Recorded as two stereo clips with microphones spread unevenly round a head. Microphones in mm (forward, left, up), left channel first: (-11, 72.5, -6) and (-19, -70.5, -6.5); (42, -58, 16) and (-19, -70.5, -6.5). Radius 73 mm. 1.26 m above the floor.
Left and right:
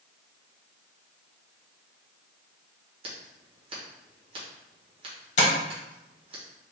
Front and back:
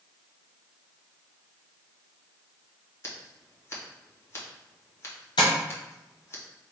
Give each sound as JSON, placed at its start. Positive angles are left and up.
{"t": 3.0, "sound": "scissors", "azimuth_deg": -40, "distance_m": 1.3}
{"t": 5.4, "sound": "tapping", "azimuth_deg": 50, "distance_m": 1.2}